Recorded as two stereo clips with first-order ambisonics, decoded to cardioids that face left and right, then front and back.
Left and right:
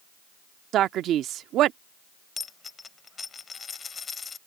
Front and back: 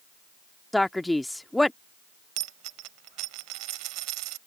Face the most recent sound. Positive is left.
turn(degrees=160)